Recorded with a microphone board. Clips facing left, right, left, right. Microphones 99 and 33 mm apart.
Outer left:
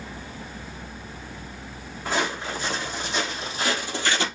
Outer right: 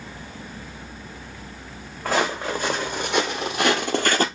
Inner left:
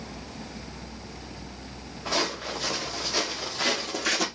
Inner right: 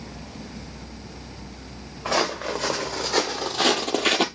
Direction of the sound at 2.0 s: 50° right (ahead or behind).